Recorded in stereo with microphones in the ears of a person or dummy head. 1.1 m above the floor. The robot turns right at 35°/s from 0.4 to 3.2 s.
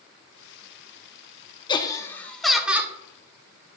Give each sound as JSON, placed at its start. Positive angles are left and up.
{"t": 1.7, "sound": "laughter", "azimuth_deg": 150, "distance_m": 0.8}